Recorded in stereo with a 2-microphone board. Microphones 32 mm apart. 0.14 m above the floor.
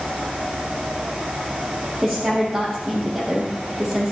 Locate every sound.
2.0 s a woman speaking: 5° right (ahead or behind), 5.5 m